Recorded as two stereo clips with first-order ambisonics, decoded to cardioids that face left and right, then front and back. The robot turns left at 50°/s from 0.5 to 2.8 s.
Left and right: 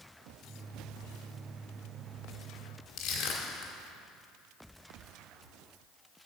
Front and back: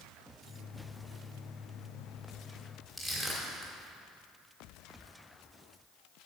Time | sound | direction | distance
3.0 | crushing | 75° left | 2 m